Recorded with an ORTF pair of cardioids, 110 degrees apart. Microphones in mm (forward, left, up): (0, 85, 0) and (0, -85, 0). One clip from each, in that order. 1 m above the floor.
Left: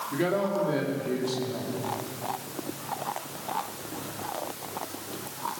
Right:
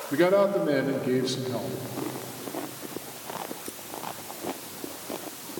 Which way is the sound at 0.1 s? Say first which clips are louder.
Right 7 dB; 40° right.